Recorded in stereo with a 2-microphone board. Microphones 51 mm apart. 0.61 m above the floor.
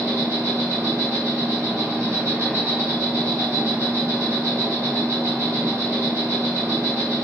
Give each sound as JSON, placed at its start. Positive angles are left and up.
{"t": 0.0, "sound": "an insect", "side_deg": -85, "distance_m": 1.0}